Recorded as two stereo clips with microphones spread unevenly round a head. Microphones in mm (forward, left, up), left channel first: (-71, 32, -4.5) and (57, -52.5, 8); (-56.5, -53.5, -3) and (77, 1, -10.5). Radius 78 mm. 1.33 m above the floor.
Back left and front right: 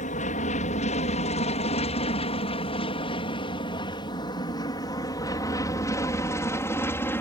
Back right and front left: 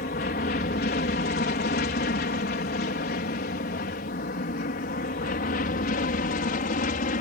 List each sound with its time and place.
0.0 s an aircraft: straight behind; by 7.2 s 140° right